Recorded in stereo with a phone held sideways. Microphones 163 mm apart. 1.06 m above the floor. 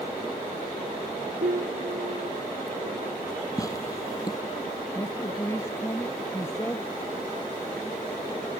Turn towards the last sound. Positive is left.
turn(degrees=15)  # may be behind; listen again after turning